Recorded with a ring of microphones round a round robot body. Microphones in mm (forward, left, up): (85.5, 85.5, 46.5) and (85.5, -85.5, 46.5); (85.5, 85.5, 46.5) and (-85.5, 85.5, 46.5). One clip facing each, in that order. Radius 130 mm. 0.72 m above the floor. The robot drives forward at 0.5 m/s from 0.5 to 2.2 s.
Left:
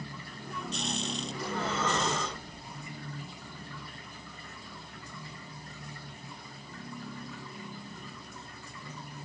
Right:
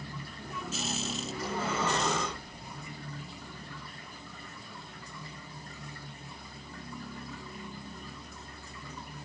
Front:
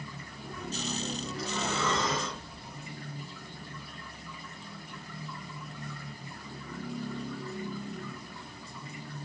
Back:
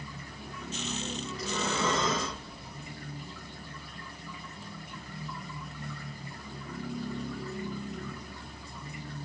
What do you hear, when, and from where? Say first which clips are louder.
1.3 s breathing: right 1 dB, back 2 dB; 165° right, 0.8 m; by 2.9 s 170° right, 1.2 m